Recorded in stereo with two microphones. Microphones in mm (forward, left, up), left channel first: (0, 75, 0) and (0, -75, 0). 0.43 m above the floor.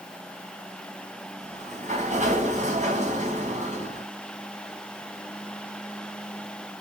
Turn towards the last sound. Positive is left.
turn(degrees=-55)  # may be behind; listen again after turning